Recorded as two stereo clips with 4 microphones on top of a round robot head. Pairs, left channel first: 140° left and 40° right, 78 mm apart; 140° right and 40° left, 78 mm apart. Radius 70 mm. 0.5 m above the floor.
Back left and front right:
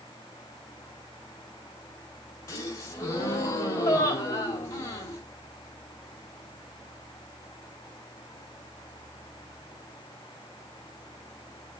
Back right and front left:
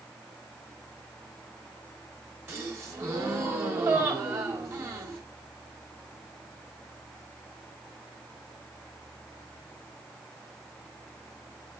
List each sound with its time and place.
2.5 s a gasp: 95° left, 3.5 m